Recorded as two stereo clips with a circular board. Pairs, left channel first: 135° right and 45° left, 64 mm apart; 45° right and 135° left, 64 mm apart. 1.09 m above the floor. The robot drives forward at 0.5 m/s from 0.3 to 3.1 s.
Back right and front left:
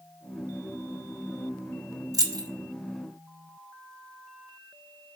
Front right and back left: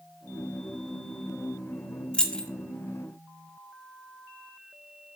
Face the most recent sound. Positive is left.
turn(degrees=50)